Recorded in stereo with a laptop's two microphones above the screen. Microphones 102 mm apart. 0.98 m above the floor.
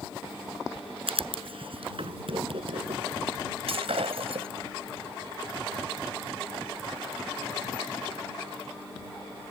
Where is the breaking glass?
75° right (ahead or behind).